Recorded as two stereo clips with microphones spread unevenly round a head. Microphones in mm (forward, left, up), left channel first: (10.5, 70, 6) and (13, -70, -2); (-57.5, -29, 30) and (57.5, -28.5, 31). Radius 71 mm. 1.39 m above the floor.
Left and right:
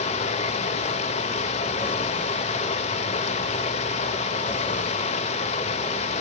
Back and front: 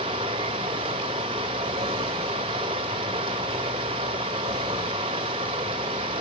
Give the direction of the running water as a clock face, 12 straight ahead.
10 o'clock.